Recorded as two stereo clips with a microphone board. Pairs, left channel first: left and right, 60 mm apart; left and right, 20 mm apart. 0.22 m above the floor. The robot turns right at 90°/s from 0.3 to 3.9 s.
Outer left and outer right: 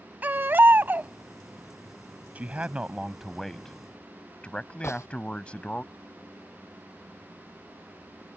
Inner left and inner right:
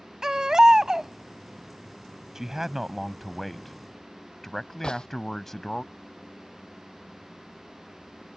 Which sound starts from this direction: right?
A man speaking, at 2.4 s.